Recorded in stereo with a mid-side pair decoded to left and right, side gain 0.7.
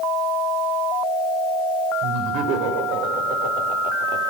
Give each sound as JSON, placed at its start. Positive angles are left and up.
{"t": 2.0, "sound": "laughter", "azimuth_deg": -65, "distance_m": 6.0}